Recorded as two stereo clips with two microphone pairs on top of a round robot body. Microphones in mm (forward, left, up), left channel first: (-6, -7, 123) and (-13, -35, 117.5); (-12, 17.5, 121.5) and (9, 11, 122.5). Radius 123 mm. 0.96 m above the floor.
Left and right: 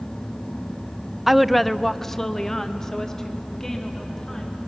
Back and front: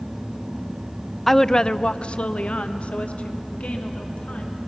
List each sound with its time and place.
1.3 s a woman speaking: 135° right, 0.5 m; by 4.6 s 145° left, 2.5 m